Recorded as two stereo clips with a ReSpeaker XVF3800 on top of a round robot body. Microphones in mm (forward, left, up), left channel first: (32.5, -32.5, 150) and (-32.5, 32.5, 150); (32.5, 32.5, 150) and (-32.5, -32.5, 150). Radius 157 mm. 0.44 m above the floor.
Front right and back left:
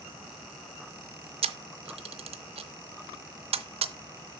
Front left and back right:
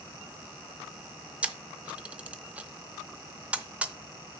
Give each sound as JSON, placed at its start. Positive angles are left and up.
{"t": 1.4, "sound": "a camera shutter", "azimuth_deg": 150, "distance_m": 0.6}